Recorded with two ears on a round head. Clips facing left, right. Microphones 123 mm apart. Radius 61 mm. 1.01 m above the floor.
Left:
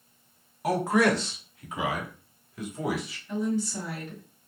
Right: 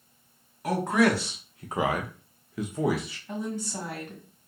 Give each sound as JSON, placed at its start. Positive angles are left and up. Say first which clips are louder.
{"t": 0.6, "sound": "a man speaking", "louder": "even", "side_deg": 10, "distance_m": 0.8}
{"t": 3.3, "sound": "a woman speaking", "louder": "left 5 dB", "side_deg": -40, "distance_m": 1.9}